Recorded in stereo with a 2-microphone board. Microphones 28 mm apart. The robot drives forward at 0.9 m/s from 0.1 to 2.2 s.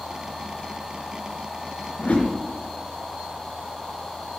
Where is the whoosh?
60° left (ahead or behind), 3.5 m; by 2.3 s 65° left (ahead or behind), 3.5 m.